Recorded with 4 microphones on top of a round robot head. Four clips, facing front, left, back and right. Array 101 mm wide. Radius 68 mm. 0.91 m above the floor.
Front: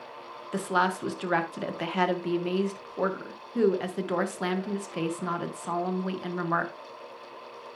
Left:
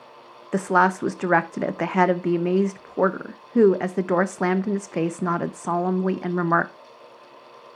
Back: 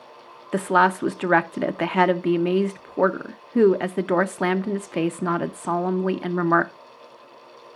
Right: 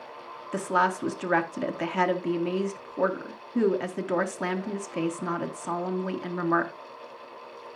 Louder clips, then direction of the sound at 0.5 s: Left 5 dB, back 8 dB; 135° left.